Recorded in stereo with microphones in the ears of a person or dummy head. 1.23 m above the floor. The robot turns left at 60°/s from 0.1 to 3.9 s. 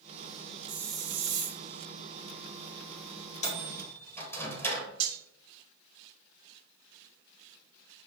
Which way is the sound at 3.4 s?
45° left (ahead or behind).